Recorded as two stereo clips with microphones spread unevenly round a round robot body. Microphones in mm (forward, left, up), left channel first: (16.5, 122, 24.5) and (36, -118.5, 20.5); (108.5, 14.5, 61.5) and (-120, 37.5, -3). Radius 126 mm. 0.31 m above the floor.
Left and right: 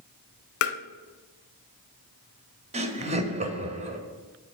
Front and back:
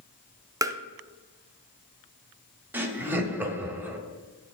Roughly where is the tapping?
Left.